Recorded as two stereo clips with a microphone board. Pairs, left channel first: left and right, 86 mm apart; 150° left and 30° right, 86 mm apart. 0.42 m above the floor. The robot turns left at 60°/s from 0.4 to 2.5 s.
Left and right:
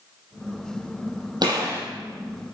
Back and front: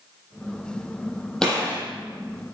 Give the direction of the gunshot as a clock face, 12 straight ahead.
4 o'clock.